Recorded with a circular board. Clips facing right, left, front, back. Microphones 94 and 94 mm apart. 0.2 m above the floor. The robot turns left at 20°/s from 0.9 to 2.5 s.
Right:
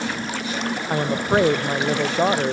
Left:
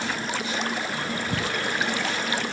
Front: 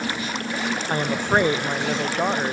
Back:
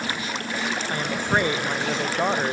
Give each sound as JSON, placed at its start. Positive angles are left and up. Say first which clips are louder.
{"t": 0.9, "sound": "a woman speaking", "louder": "right 9 dB, front 4 dB", "azimuth_deg": -65}